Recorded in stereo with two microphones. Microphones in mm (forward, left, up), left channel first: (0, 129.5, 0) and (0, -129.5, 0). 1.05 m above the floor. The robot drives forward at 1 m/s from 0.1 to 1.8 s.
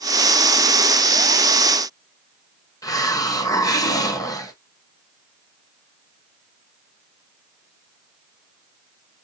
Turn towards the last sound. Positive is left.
turn(degrees=15)  # may be behind; listen again after turning